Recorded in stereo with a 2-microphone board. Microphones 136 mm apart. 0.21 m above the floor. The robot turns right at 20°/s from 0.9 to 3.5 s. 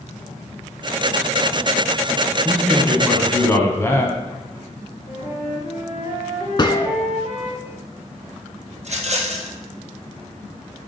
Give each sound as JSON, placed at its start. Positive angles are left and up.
{"t": 2.5, "sound": "a man speaking", "side_deg": 5, "distance_m": 1.3}
{"t": 5.1, "sound": "a flute", "side_deg": 55, "distance_m": 3.0}
{"t": 6.6, "sound": "a gunshot", "side_deg": 35, "distance_m": 0.5}
{"t": 8.8, "sound": "a rattle", "side_deg": -55, "distance_m": 1.4}